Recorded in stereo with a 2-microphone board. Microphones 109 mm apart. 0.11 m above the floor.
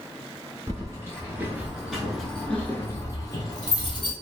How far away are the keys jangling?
About 1.3 m.